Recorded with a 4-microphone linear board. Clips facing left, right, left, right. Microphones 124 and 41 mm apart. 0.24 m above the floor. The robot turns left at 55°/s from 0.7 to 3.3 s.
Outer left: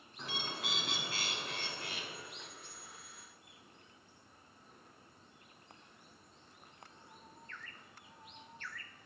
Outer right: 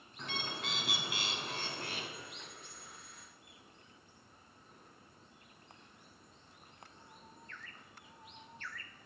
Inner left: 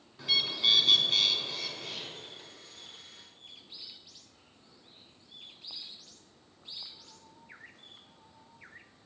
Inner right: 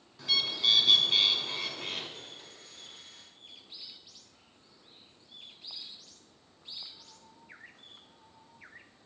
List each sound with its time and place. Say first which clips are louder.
0.2 s a bird: outer right 1 dB, inner left 1 dB; 5° left, 0.8 m; by 2.1 s 70° right, 0.8 m